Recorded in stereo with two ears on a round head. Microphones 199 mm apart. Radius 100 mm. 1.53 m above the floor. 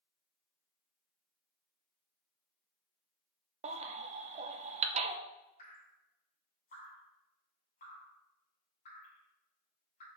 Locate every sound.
3.6 s a baby crying: 30° right (ahead or behind), 0.6 m
5.6 s dripping: 40° left (ahead or behind), 2.5 m